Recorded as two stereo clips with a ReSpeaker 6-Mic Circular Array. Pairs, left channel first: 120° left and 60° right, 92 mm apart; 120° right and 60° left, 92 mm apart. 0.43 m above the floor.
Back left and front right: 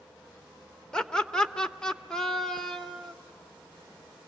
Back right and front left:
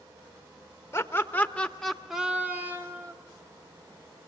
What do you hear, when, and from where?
0.9 s laughter: 165° right, 1.4 m; by 3.1 s 35° left, 1.3 m